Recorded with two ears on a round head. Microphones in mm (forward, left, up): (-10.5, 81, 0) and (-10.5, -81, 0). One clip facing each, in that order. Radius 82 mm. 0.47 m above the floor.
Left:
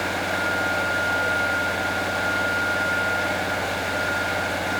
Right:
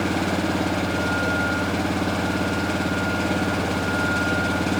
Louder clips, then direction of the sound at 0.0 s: Right 4 dB; 40° right (ahead or behind).